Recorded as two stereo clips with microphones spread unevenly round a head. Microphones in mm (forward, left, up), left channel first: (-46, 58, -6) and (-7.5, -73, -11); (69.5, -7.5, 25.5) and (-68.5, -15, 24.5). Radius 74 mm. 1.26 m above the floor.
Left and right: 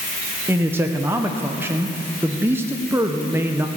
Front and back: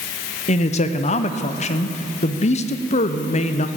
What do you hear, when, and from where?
0.5 s a man speaking: 5° right, 0.6 m